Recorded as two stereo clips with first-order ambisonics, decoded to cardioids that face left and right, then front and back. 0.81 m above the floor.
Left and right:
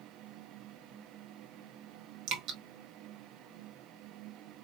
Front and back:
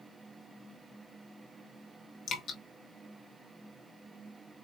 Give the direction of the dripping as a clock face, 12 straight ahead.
2 o'clock.